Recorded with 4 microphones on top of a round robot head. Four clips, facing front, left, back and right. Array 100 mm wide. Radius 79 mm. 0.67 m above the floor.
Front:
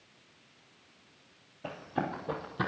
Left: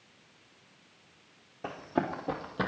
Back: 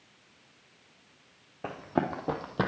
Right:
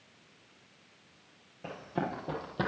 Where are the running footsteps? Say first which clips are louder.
Left 3 dB, back 4 dB; 155° left, 2.0 m; by 2.7 s 175° right, 1.2 m.